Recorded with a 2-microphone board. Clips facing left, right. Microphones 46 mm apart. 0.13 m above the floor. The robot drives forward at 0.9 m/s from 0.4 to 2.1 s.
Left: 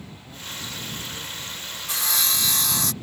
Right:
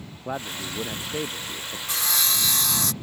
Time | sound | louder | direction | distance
0.2 | a man speaking | right 6 dB | 80° right | ?
1.9 | sawing | even | centre (ahead or behind) | ?